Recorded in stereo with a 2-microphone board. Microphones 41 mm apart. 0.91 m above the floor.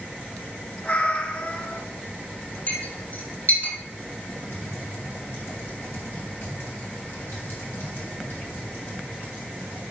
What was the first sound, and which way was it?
A cat meowing, 35° left (ahead or behind).